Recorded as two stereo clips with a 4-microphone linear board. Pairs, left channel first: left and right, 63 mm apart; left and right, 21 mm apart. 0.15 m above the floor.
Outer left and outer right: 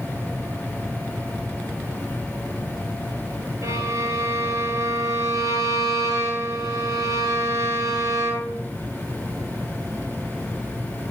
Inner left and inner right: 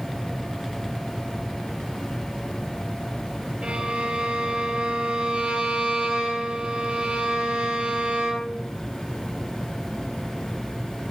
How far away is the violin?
About 3 m.